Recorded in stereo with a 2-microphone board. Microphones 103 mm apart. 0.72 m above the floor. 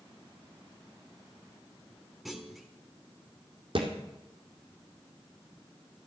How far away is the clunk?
About 1.3 m.